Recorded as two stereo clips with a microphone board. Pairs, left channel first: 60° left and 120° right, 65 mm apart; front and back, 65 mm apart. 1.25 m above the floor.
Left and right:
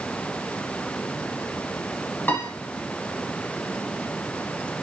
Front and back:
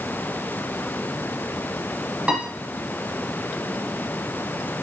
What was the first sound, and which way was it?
A piano, 110° left.